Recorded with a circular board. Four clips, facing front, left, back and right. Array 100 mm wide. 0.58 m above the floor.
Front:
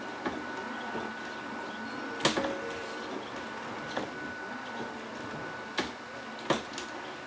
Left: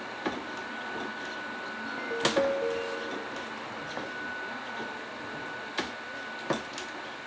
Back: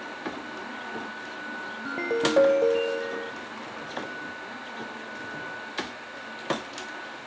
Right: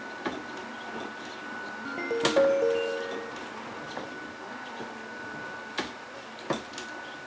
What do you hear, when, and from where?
1.9 s a ringtone: 160° right